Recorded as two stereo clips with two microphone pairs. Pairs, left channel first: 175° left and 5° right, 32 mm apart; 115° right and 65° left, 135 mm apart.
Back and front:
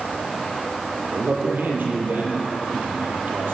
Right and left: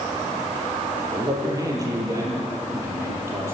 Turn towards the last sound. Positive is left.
turn(degrees=-5)